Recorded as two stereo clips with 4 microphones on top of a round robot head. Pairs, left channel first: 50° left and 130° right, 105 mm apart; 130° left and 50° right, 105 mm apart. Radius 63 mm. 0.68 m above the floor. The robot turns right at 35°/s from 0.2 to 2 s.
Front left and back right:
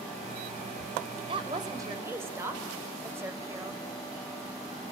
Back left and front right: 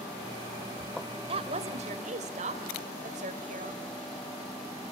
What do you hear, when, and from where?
1.3 s a woman speaking: 90° right, 2.5 m; by 3.9 s 65° right, 2.5 m